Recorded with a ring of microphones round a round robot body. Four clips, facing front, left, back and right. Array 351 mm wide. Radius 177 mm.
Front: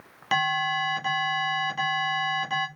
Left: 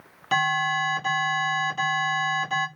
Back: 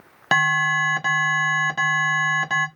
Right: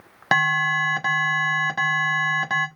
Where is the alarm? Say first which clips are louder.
Right 2 dB, back 5 dB; 130° right, 1.8 m.